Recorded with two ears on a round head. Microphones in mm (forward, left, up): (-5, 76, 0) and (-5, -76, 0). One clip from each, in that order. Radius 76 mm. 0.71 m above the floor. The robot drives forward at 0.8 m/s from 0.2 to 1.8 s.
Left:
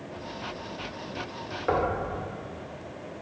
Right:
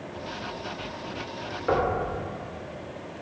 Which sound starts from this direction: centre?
Knocking, at 1.7 s.